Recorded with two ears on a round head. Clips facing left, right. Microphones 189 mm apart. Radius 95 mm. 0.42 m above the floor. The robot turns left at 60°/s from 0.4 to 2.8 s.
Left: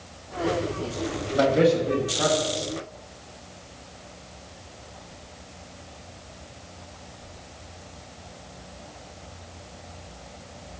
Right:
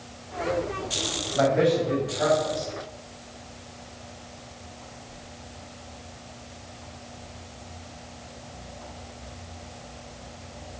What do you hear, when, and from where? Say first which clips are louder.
1.3 s a man speaking: left 2 dB; 30° left (ahead or behind), 2 m; by 2.7 s 55° left (ahead or behind), 2 m